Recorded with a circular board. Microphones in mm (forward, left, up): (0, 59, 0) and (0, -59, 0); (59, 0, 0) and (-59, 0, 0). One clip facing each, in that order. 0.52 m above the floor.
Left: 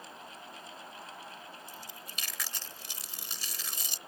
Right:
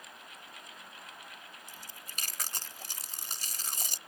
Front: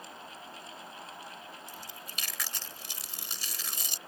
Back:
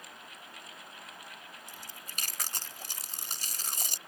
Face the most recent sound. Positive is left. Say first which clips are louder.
# left 4 dB, front 3 dB
turn(degrees=-135)